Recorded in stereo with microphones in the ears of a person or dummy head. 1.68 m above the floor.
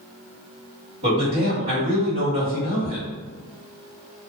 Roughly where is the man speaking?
Right.